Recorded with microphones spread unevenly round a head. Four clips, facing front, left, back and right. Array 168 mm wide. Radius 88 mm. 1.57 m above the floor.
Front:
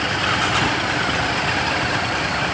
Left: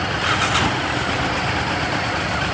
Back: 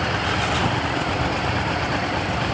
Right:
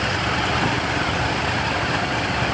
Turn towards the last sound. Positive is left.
No sound to turn to.